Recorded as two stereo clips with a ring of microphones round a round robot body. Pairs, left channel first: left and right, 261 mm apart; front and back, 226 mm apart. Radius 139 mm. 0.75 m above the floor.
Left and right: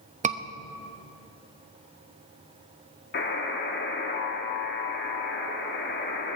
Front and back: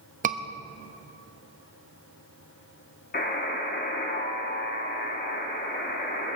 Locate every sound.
0.2 s a scream: 140° right, 1.0 m
3.1 s a buzzer: 45° left, 1.9 m